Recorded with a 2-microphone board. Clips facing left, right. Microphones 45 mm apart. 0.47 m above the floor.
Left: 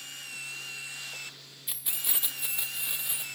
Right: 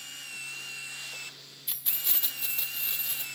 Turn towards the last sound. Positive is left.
turn(degrees=15)  # may be behind; listen again after turning